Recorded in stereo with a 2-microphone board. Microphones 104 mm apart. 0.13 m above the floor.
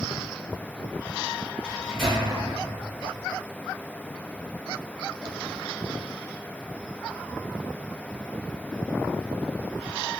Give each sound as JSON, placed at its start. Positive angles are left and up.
{"t": 1.6, "sound": "a microwave", "side_deg": 5, "distance_m": 1.7}